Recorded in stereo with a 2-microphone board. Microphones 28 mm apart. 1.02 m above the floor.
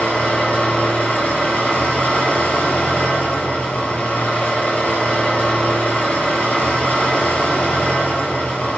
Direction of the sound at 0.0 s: 80° left.